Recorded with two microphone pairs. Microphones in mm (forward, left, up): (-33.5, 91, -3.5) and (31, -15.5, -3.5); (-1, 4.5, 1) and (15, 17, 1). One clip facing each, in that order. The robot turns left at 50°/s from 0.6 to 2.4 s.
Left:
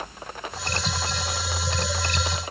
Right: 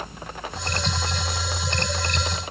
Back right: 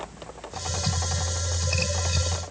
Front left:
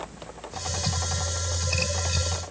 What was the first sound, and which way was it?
Only background noise.